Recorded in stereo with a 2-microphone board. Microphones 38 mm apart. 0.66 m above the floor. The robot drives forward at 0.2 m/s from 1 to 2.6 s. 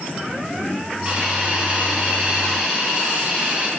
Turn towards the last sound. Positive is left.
turn(degrees=-25)  # may be behind; listen again after turning